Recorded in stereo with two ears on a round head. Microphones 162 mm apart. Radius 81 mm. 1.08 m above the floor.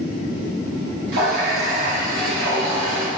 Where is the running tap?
80° right, 3.5 m.